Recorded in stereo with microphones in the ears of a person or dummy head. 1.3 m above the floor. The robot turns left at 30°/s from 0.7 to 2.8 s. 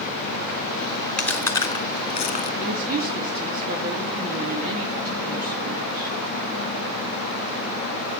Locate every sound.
1.2 s chewing: 5° left (ahead or behind), 1.9 m; by 2.5 s 40° left (ahead or behind), 1.9 m
2.6 s a woman speaking: 45° right (ahead or behind), 2.5 m; by 6.2 s 50° right (ahead or behind), 2.5 m